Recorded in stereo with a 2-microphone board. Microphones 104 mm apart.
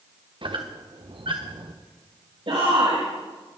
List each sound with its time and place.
0.4 s a squeak: 55° right (ahead or behind), 2 m
2.5 s a shout: 70° right (ahead or behind), 5 m